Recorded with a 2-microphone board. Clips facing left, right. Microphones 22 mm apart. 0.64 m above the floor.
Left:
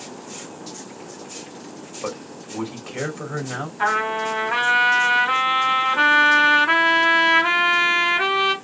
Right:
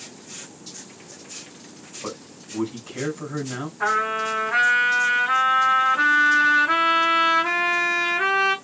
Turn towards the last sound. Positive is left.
turn(degrees=70)  # may be behind; listen again after turning